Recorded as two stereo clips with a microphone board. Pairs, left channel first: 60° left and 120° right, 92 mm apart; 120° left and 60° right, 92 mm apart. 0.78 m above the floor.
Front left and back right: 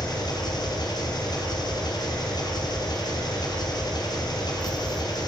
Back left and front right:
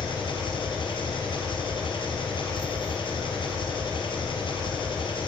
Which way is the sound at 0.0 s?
100° left.